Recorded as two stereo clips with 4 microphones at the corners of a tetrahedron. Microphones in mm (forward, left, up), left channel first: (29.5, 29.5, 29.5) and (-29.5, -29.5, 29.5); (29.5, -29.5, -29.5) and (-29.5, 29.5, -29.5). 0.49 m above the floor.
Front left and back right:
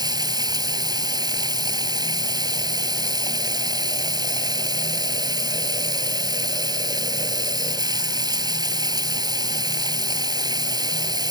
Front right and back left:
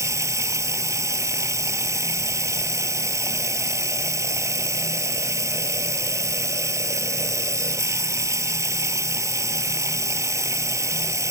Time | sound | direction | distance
0.0 | running water | 170° right | ?